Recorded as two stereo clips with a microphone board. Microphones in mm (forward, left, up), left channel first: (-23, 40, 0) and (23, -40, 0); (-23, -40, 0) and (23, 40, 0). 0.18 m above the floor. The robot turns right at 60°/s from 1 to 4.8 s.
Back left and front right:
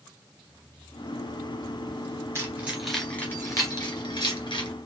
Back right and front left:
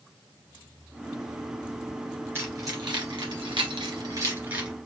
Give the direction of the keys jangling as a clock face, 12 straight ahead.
12 o'clock.